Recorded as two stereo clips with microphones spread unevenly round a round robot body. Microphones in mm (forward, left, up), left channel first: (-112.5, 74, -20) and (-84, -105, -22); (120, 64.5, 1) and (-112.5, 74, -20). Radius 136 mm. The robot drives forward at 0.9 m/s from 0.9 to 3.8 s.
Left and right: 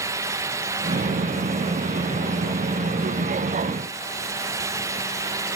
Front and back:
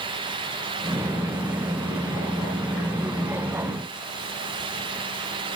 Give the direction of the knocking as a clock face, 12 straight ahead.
No knocking in this recording.